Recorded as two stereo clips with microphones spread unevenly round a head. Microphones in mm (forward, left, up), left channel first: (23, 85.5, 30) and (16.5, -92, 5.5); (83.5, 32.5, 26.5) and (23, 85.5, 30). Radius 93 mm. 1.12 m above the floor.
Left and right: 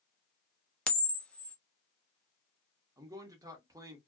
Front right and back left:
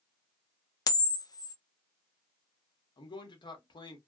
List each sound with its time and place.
0.9 s a camera shutter: 5° left, 0.6 m
3.0 s a man speaking: 25° right, 1.0 m